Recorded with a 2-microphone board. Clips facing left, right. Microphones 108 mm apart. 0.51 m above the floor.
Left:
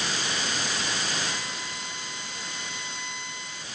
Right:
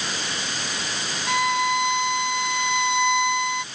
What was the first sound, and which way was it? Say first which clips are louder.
A violin: right 14 dB; 70° right (ahead or behind).